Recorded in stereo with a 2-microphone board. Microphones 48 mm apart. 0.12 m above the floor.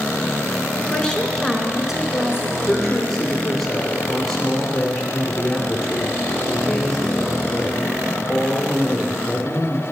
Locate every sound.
0.9 s a woman speaking: 20° left (ahead or behind), 1.1 m; by 2.6 s 20° right (ahead or behind), 1.2 m
2.7 s a woman speaking: 10° left (ahead or behind), 2.5 m